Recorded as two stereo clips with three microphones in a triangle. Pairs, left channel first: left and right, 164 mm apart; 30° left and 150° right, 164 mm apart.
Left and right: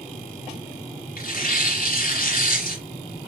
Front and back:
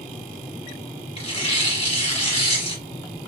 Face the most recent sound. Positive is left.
turn(degrees=75)